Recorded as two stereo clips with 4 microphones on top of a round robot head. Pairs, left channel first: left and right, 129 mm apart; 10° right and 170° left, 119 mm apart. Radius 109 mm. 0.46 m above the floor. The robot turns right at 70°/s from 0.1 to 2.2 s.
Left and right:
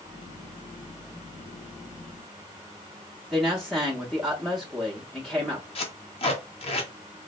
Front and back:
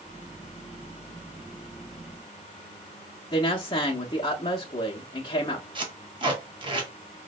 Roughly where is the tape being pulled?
Behind left.